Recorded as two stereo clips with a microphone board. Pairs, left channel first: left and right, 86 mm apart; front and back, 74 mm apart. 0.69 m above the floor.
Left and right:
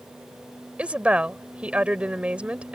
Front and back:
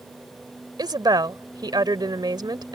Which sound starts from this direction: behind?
A woman speaking, at 0.8 s.